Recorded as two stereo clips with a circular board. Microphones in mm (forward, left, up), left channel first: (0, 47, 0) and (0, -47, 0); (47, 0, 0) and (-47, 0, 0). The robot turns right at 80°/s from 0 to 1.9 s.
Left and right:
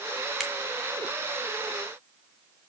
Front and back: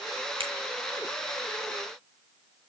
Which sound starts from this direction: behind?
A finger snap, at 0.4 s.